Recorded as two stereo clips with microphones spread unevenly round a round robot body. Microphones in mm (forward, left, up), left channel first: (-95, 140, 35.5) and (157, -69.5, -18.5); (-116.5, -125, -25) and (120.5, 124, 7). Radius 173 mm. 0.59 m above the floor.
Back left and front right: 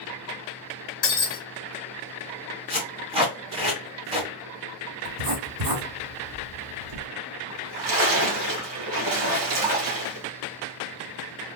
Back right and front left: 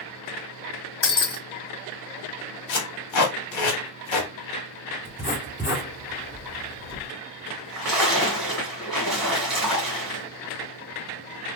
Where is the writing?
40° right, 2.5 m.